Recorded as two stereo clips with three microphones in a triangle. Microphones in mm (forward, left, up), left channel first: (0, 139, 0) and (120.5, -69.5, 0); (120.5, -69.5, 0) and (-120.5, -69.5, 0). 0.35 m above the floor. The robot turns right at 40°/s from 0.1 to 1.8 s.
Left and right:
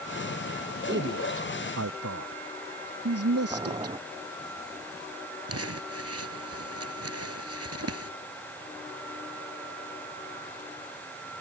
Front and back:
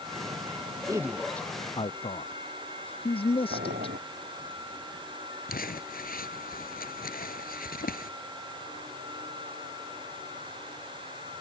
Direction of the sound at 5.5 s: 50° right.